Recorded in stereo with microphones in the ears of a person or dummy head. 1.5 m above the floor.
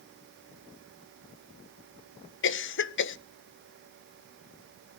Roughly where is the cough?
Left.